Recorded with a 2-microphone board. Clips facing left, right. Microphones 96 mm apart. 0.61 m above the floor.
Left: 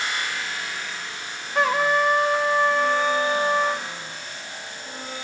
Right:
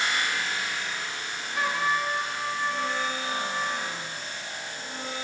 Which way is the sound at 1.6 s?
65° left (ahead or behind).